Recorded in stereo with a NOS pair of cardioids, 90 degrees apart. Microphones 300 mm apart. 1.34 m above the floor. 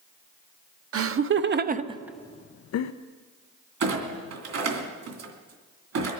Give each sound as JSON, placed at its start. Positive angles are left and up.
{"t": 0.9, "sound": "laughter", "azimuth_deg": -50, "distance_m": 1.2}
{"t": 3.8, "sound": "a clunk", "azimuth_deg": -55, "distance_m": 3.0}